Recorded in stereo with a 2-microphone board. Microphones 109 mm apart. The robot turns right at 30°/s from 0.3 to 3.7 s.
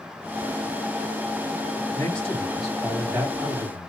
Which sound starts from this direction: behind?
A man speaking, at 1.9 s.